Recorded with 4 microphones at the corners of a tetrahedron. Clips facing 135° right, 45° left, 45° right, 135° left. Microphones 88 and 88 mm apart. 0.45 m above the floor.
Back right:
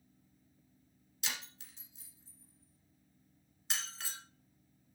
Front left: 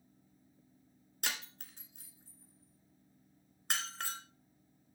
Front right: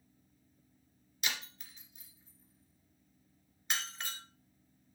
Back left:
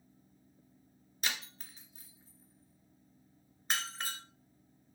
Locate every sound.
1.2 s breaking glass: 80° left, 1.7 m